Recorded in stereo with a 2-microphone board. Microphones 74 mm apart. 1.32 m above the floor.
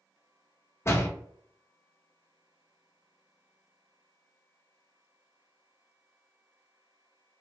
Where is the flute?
I don't hear a flute.